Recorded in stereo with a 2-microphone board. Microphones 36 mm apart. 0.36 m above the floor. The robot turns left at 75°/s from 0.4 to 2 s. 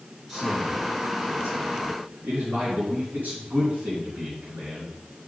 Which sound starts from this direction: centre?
A man speaking, at 0.3 s.